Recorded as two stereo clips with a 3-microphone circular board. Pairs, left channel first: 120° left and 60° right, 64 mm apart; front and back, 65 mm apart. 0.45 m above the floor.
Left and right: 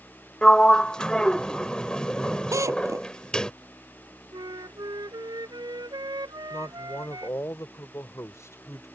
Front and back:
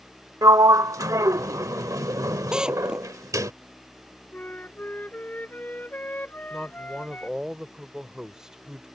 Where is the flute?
65° right.